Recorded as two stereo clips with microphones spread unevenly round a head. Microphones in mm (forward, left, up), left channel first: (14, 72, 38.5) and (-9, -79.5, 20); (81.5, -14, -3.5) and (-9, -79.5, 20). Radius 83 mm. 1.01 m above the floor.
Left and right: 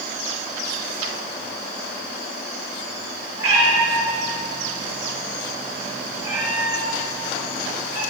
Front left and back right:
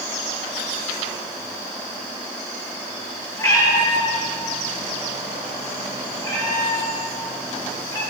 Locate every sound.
3.4 s a cat meowing: 25° right, 5 m